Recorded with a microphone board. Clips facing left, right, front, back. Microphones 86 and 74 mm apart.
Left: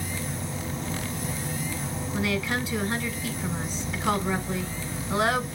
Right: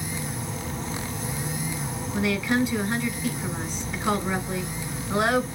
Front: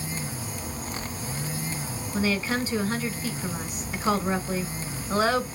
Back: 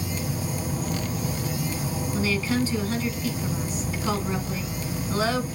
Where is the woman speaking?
25° left, 1.1 m.